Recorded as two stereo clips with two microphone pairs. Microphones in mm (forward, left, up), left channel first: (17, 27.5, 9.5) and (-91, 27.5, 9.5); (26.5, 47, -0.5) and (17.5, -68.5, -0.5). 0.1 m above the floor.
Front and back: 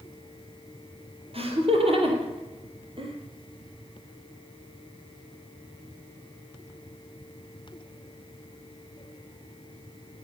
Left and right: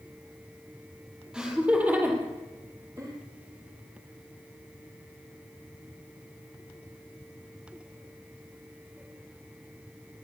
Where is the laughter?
175° right, 3 m; by 3.1 s 150° right, 3.5 m.